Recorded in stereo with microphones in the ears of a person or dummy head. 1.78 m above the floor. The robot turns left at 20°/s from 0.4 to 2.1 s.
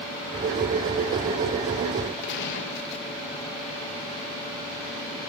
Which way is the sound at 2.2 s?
65° left (ahead or behind).